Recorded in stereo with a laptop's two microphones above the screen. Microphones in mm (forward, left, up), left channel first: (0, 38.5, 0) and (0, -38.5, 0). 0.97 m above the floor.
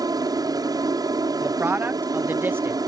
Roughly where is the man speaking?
Right.